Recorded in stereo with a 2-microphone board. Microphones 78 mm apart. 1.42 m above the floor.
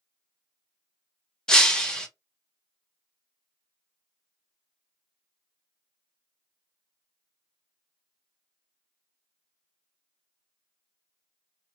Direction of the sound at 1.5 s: 10° left (ahead or behind).